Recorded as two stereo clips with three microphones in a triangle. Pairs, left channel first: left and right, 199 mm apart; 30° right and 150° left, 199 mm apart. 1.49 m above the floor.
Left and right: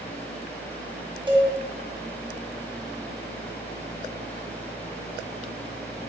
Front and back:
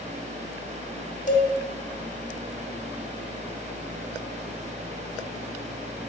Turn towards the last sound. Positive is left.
turn(degrees=-35)